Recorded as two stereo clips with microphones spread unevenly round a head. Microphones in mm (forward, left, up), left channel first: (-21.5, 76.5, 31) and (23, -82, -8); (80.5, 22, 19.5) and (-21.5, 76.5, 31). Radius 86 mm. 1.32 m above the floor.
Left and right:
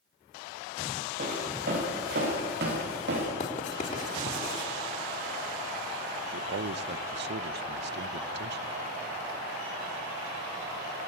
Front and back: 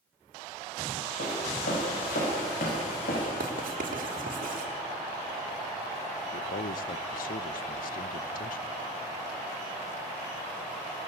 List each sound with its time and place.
1.2 s footsteps: 30° right, 8 m; by 3.3 s 50° right, 7.5 m
3.4 s writing: 155° left, 3.5 m
6.3 s a man speaking: 45° right, 0.9 m